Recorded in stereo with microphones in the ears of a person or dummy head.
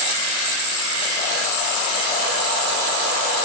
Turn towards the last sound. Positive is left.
No sound to turn to.